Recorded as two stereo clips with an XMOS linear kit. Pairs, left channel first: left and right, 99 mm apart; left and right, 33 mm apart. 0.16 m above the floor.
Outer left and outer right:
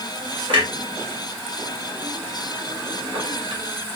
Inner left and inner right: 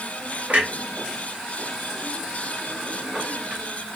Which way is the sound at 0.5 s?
55° right (ahead or behind).